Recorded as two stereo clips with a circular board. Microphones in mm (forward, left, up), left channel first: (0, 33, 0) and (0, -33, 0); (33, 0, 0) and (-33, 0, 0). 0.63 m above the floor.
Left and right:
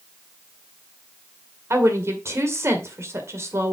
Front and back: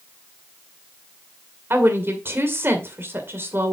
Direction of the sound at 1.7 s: 130° right.